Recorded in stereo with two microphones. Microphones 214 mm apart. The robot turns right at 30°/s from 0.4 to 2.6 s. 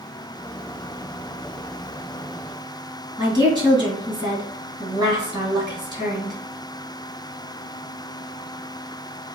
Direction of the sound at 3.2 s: 20° right (ahead or behind).